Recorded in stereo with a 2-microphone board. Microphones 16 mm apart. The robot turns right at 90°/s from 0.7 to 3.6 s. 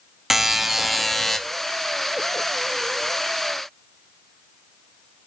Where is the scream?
No scream in this recording.